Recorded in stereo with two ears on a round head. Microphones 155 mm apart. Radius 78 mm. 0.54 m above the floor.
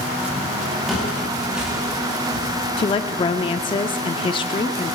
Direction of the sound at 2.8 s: 30° left (ahead or behind).